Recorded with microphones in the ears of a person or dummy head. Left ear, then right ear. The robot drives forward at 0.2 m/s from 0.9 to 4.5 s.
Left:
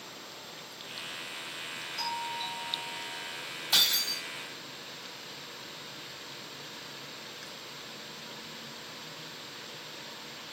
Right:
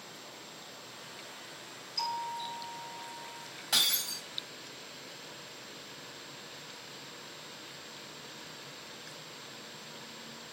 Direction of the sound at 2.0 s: 70° right (ahead or behind).